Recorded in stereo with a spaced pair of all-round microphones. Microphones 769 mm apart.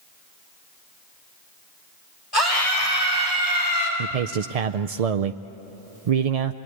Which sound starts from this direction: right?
A man speaking, at 4.0 s.